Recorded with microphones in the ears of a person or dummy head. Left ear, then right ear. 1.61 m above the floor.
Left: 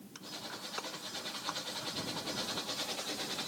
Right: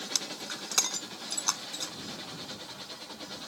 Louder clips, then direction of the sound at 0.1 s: Right 6 dB; 75° right (ahead or behind).